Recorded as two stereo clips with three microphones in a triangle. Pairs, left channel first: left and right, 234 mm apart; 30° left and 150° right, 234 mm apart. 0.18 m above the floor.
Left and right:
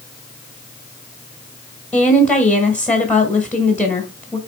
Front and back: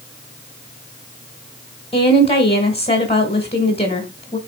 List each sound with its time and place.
1.9 s a woman speaking: 10° left, 1.7 m